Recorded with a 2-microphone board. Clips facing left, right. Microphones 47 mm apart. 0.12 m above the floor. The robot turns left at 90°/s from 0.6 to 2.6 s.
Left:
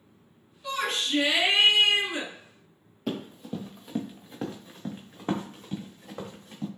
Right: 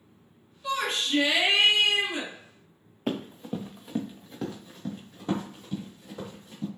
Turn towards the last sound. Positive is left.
turn(degrees=60)  # may be behind; listen again after turning